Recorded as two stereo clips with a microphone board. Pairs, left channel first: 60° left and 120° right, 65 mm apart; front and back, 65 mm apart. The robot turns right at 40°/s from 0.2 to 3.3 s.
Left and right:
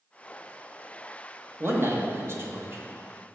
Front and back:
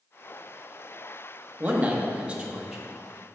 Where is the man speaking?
145° right, 0.9 m; by 2.8 s 95° right, 0.9 m.